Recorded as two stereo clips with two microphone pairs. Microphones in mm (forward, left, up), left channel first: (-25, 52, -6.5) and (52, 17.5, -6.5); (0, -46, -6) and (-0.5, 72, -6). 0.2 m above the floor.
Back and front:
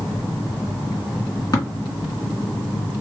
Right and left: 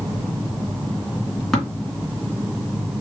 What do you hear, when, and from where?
1.5 s tapping: 175° right, 2 m